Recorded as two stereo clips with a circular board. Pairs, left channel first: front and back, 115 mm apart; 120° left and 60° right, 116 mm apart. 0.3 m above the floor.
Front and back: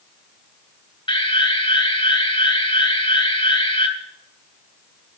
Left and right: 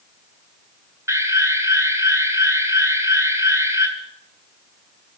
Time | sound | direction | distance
1.1 | an alarm | 5° right | 3 m